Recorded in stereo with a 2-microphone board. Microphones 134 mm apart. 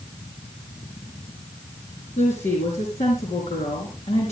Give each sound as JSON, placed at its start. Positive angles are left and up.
{"t": 2.2, "sound": "a woman speaking", "side_deg": 60, "distance_m": 3.5}